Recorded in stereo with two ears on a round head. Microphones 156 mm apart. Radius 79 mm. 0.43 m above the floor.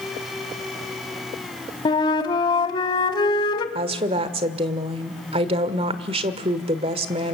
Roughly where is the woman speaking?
Right.